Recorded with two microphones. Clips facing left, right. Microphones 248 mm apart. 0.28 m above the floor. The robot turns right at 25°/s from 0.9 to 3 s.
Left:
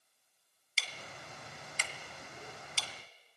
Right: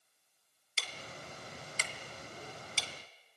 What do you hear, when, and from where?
0.8 s ticking: 55° right (ahead or behind), 2 m; by 2.9 s 15° right (ahead or behind), 2 m